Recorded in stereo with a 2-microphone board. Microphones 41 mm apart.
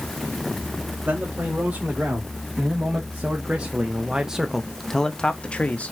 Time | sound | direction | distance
1.1 | a man speaking | 50° right (ahead or behind) | 2 m